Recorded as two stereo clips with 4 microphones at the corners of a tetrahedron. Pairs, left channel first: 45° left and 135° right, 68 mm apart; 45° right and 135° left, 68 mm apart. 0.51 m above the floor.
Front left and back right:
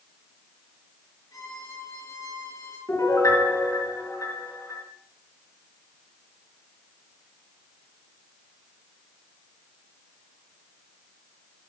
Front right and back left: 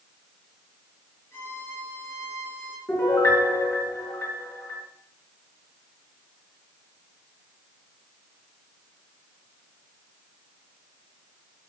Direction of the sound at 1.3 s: 10° left.